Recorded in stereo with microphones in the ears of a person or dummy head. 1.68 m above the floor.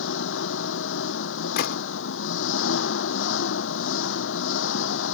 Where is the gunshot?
60° left (ahead or behind).